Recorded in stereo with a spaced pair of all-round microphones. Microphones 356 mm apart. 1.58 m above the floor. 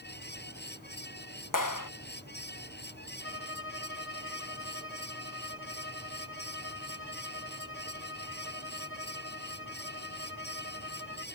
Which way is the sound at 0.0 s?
30° left (ahead or behind).